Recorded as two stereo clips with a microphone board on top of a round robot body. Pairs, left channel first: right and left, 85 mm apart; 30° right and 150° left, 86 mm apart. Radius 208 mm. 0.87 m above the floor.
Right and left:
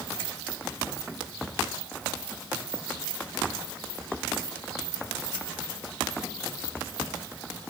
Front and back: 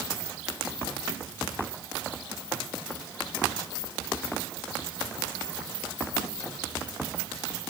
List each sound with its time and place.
Only background noise.